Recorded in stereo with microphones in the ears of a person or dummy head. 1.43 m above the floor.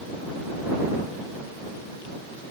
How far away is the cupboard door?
I don't hear a cupboard door.